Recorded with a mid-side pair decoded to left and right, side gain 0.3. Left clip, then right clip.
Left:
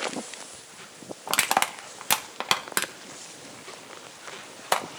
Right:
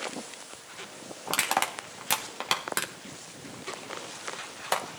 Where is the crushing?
45° left, 1.2 m.